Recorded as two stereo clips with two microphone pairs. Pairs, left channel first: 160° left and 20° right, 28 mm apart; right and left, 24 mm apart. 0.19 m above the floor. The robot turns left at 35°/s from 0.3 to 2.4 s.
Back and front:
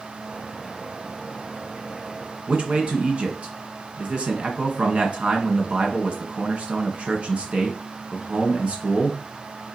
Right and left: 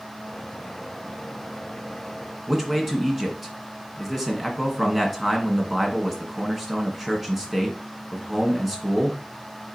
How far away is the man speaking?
About 2 m.